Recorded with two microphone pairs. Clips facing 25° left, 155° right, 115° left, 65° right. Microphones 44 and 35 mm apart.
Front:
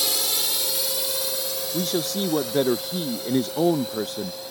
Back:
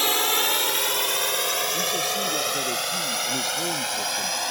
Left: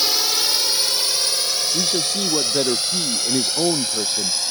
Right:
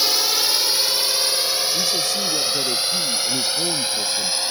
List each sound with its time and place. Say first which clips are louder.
0.0 s a drone: back 5 dB, even; 150° right; by 4.5 s 135° right
1.7 s a man speaking: even, even; 60° left